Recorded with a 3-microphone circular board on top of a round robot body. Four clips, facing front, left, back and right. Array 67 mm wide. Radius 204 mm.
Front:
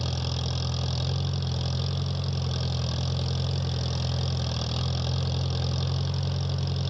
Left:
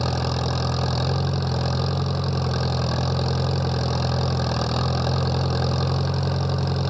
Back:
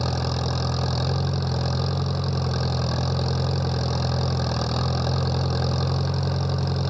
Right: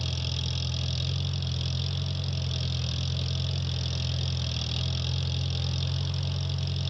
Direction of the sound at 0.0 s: 120° left.